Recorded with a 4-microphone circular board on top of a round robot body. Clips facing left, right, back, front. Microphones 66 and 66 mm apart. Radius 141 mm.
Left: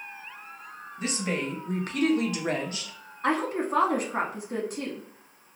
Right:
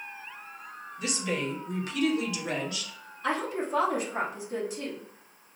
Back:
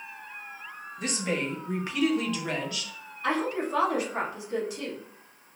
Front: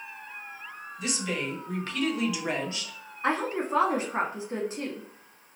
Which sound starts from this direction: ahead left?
A woman speaking, at 3.2 s.